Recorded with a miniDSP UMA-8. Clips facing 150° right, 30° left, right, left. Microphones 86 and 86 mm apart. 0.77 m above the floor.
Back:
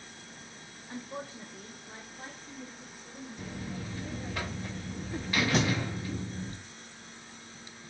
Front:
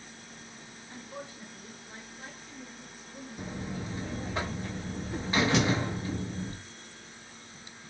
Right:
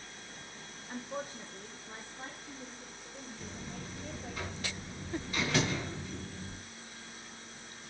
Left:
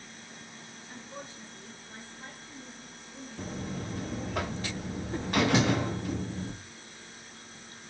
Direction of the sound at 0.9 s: 130° right.